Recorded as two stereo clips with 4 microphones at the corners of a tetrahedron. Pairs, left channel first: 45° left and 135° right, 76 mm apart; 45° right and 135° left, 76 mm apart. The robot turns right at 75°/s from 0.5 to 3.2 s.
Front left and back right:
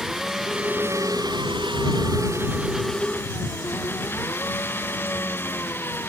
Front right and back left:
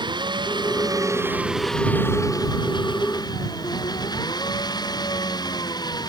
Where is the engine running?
140° left; by 6.1 s 20° right.